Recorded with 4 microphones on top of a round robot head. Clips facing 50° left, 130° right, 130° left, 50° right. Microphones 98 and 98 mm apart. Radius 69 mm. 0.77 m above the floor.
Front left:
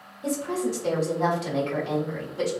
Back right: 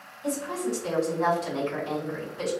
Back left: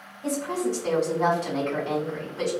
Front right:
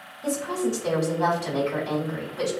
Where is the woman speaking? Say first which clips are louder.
Front left 2 dB, front right 1 dB; 25° left, 1.6 m.